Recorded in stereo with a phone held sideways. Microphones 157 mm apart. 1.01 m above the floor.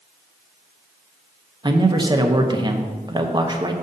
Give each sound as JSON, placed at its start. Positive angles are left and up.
{"t": 1.6, "sound": "a man speaking", "side_deg": -30, "distance_m": 0.8}